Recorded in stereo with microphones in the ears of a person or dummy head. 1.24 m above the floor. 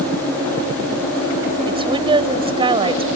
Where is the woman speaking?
25° right (ahead or behind).